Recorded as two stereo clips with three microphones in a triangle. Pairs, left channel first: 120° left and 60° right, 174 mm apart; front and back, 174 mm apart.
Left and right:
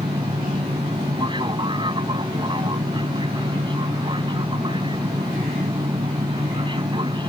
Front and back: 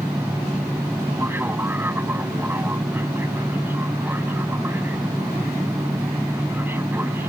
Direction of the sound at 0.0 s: 110° right.